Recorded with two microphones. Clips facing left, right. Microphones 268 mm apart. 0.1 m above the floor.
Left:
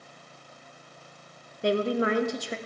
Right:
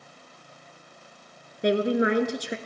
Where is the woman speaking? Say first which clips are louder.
Right 3 dB; 20° right (ahead or behind), 1.2 m.